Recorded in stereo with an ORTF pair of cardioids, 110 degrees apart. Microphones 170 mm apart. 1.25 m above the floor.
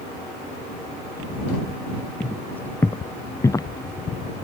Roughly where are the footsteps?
Ahead.